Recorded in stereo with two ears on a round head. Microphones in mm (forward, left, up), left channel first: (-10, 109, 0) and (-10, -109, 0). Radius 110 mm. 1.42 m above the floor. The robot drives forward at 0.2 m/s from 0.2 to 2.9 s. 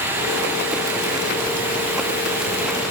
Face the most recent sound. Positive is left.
No sound to turn to.